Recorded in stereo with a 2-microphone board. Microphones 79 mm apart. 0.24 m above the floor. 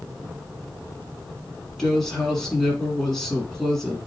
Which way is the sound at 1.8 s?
10° left (ahead or behind).